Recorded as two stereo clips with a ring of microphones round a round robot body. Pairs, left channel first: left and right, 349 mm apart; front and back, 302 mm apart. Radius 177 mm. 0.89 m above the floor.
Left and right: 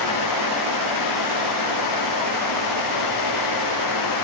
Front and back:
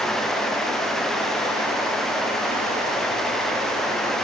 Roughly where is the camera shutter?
I don't hear a camera shutter.